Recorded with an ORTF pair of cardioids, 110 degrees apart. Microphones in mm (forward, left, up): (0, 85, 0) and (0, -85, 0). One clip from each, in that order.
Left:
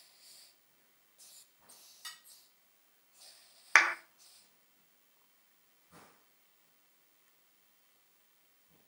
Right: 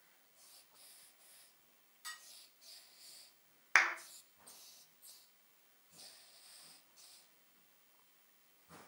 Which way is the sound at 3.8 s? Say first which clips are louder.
Left 5 dB; 25° left.